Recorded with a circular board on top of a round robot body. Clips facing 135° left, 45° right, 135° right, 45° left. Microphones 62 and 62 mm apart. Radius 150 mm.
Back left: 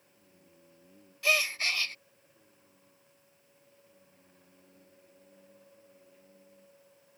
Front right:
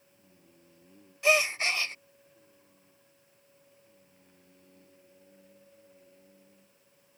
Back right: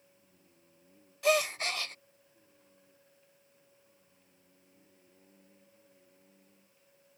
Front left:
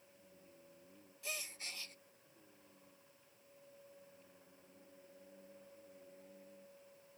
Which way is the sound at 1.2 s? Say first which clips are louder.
Front right 4 dB, back right 20 dB; 115° right.